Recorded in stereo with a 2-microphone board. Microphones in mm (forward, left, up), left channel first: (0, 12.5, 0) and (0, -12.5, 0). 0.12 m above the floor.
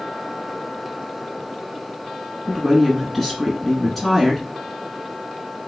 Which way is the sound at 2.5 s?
Centre (ahead or behind).